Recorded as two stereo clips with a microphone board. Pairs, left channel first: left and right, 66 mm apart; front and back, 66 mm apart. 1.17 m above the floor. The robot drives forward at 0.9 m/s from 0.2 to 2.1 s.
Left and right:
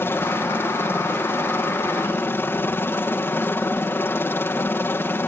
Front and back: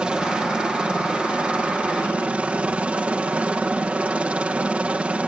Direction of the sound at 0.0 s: 115° left.